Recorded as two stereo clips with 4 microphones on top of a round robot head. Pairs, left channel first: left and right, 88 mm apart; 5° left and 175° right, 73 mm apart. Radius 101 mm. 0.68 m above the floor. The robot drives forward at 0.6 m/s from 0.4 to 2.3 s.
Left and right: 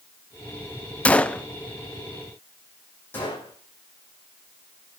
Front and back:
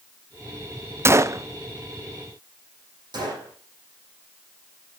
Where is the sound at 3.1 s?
160° left, 8.5 m.